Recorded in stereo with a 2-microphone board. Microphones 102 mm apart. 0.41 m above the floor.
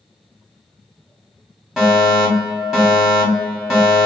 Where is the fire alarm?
5° right (ahead or behind), 1.7 m.